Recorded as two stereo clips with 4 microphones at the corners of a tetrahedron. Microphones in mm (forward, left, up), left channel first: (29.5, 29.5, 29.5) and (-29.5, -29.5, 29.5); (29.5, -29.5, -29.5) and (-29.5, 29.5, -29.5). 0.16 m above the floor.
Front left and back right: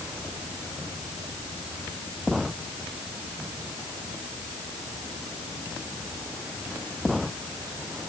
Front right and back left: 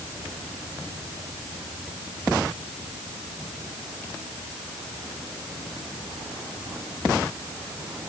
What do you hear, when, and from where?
Only background noise.